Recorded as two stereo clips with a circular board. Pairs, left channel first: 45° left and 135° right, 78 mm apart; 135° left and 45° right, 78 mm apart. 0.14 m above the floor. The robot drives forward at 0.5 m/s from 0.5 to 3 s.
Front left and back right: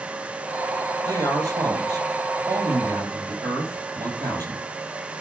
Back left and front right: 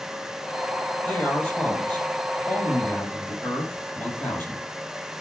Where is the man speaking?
160° right, 4 m; by 4.6 s 165° right, 5 m.